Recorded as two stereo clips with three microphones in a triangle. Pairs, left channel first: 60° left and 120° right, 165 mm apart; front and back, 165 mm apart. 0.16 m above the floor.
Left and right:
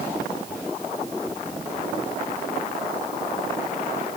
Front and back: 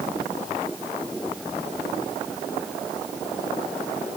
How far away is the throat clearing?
No throat clearing in this recording.